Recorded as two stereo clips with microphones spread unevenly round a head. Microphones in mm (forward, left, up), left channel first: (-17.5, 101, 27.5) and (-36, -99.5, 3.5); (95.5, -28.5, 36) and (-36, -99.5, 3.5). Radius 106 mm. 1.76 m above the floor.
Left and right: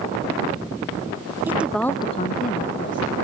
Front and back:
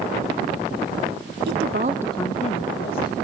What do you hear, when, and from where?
1.5 s a woman speaking: straight behind, 0.9 m; by 3.2 s 30° left, 1.4 m